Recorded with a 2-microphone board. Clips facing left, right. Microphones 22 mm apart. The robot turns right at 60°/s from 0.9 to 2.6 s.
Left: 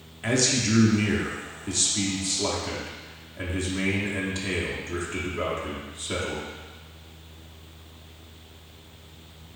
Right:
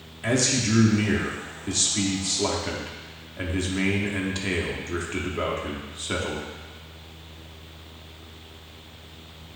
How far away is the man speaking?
About 0.6 m.